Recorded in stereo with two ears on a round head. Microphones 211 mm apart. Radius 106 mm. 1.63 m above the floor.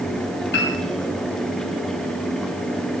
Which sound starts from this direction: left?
A piano, at 0.5 s.